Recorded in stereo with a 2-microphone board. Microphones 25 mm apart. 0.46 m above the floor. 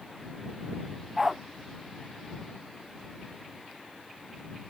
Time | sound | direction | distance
1.2 | a dog barking | 15° right (ahead or behind) | ?